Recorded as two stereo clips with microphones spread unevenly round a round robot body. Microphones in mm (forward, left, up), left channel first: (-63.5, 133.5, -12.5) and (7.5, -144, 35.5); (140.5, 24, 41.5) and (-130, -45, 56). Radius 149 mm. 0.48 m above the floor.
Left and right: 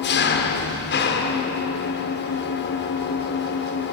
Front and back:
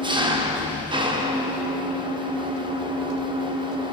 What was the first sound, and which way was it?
An engine running, 125° left.